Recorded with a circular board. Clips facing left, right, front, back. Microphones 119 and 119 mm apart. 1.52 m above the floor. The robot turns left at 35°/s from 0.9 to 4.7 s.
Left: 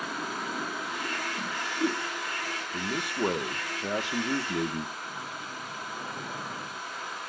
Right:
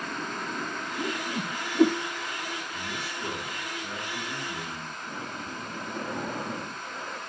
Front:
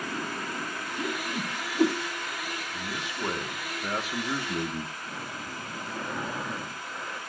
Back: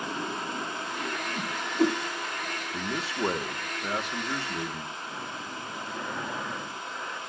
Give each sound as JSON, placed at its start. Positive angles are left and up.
{"t": 1.0, "sound": "a whoosh", "azimuth_deg": -55, "distance_m": 3.0}
{"t": 2.7, "sound": "a man speaking", "azimuth_deg": 135, "distance_m": 1.5}
{"t": 5.0, "sound": "breathing", "azimuth_deg": -80, "distance_m": 1.8}